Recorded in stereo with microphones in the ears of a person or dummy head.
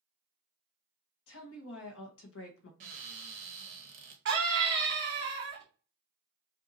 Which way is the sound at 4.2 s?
60° right (ahead or behind).